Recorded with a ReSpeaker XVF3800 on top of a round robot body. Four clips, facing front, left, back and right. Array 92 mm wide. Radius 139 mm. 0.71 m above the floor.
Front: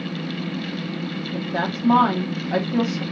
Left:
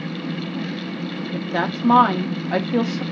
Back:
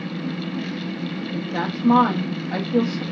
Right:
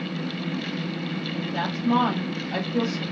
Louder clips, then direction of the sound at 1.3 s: Left 7 dB, front 2 dB; 80° left.